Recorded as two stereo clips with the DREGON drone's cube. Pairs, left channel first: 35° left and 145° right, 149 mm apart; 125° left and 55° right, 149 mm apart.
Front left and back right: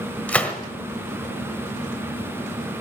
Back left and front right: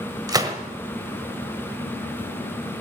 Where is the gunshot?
35° right, 1.4 m.